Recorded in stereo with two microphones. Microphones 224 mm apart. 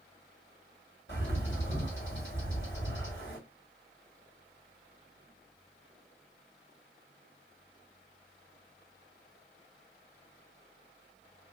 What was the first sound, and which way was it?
A bird, 60° left (ahead or behind).